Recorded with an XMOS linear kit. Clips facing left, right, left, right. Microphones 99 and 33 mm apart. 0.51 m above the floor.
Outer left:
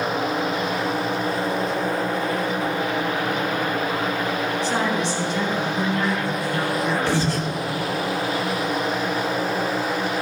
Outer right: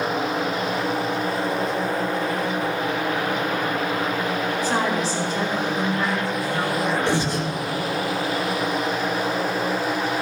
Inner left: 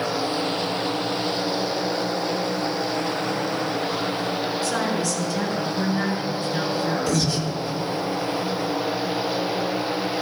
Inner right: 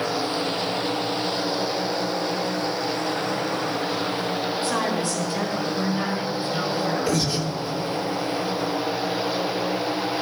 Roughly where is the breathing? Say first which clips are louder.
Even, even; right.